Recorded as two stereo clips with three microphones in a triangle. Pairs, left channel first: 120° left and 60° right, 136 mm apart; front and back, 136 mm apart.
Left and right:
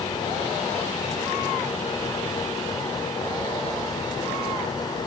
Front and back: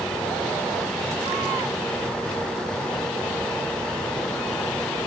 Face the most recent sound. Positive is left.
No sound to turn to.